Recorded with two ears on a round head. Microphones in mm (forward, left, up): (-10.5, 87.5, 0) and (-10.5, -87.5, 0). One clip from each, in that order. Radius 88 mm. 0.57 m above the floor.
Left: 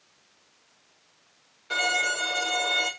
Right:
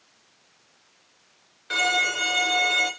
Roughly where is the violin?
Centre.